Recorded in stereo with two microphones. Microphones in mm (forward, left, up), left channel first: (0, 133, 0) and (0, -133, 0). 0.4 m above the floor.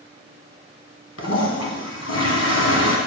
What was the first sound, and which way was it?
A toilet flushing, 70° left (ahead or behind).